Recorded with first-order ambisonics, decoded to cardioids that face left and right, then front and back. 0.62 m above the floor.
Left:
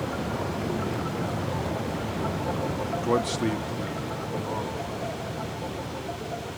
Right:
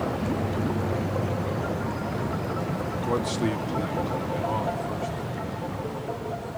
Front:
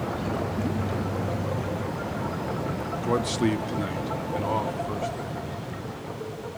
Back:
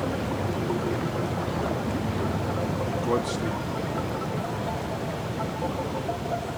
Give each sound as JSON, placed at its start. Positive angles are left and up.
{"t": 3.0, "sound": "a man speaking", "azimuth_deg": 100, "distance_m": 0.6}